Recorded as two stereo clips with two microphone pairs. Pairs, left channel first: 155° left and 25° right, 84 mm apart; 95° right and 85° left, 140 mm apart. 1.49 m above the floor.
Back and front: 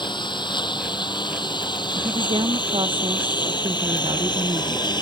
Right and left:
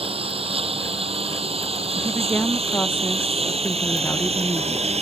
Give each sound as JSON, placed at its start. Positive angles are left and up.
{"t": 0.0, "sound": "a lawn mower", "azimuth_deg": 130}
{"t": 2.0, "sound": "a woman speaking", "azimuth_deg": -20}